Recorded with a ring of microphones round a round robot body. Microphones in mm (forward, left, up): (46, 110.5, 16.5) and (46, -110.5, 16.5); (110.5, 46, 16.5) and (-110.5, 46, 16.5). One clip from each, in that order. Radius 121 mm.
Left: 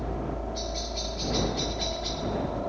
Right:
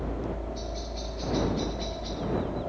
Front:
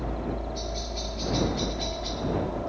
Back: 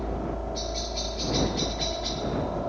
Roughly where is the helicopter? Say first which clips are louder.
Left 1 dB, back 1 dB; behind left.